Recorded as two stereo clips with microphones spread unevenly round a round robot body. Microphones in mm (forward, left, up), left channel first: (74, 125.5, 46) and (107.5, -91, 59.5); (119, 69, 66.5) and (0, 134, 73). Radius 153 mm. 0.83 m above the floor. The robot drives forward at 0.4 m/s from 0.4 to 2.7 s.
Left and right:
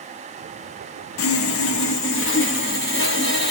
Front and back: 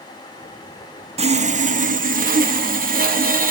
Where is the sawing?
105° left, 0.6 m; by 3.5 s 145° left, 1.0 m.